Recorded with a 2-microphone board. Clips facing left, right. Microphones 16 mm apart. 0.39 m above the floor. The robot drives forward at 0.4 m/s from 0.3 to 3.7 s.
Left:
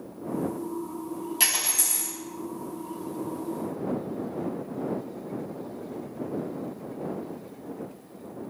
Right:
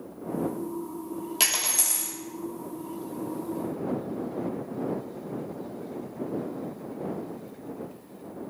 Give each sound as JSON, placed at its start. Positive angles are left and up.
{"t": 1.4, "sound": "a dropped coin", "side_deg": -20, "distance_m": 1.1}